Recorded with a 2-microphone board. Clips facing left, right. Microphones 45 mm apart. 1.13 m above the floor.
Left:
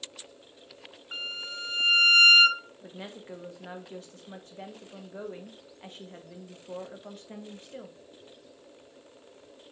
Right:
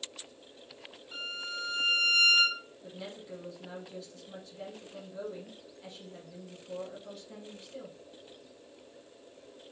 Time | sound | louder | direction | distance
1.1 | a violin | left 2 dB | 55° left (ahead or behind) | 0.6 m
2.8 | a woman speaking | left 1 dB | 45° left (ahead or behind) | 1.0 m